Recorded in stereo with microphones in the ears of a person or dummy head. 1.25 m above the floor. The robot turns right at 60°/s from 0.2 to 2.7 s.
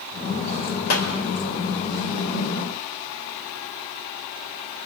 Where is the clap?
80° left, 4 m; by 1.1 s 85° left, 4 m.